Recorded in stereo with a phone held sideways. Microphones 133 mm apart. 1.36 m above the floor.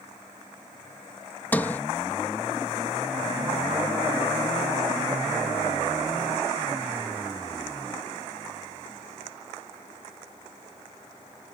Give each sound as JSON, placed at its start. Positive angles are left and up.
{"t": 1.5, "sound": "a sliding door", "side_deg": 15}